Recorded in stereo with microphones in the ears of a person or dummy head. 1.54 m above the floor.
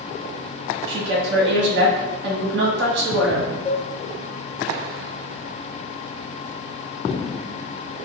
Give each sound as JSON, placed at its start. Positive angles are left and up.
{"t": 0.9, "sound": "a woman speaking", "side_deg": -65, "distance_m": 1.5}
{"t": 3.6, "sound": "a cowbell", "side_deg": 35, "distance_m": 0.5}